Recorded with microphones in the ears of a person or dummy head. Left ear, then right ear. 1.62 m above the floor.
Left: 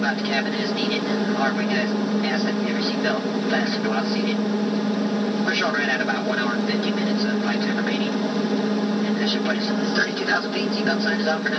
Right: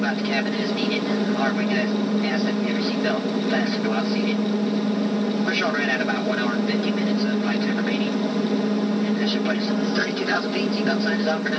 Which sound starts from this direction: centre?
An aircraft, at 0.0 s.